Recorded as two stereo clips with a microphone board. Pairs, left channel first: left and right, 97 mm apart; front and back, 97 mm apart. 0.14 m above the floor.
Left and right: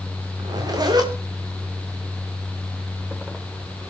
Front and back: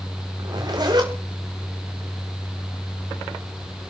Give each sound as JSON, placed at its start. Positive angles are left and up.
{"t": 0.4, "sound": "a zipper", "azimuth_deg": -135, "distance_m": 4.5}